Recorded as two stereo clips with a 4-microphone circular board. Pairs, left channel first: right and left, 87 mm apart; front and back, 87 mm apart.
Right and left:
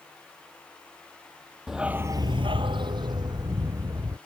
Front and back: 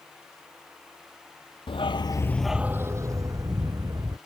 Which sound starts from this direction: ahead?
A dog barking, at 1.7 s.